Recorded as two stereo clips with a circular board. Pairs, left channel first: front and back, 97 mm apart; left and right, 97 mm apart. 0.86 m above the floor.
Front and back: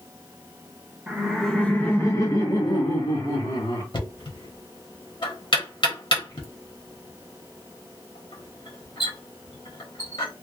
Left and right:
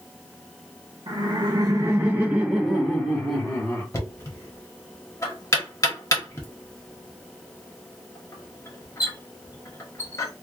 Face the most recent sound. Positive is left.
turn(degrees=30)